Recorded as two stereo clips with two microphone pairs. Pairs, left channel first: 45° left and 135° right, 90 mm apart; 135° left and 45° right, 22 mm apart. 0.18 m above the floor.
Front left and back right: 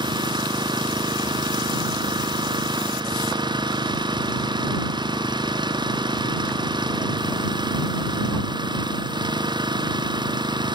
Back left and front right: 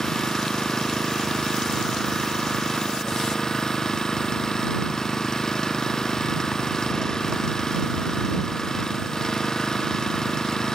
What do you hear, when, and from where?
0.0 s an engine running: 165° right